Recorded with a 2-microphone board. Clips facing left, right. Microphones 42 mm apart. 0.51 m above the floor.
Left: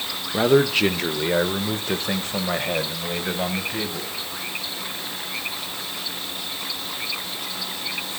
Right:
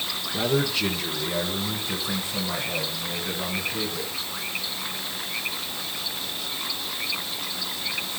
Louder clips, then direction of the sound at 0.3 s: Left 7 dB; 40° left (ahead or behind).